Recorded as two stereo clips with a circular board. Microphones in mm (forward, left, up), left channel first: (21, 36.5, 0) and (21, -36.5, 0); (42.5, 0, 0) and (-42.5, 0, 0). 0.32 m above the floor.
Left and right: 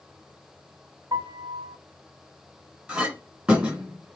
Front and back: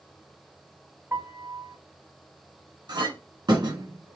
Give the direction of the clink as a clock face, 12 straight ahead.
6 o'clock.